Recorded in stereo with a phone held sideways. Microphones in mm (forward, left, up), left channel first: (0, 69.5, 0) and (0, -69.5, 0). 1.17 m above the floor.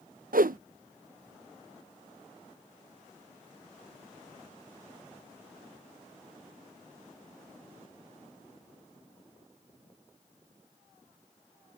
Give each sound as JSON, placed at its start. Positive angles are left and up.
{"t": 0.3, "sound": "a whoosh", "side_deg": -90}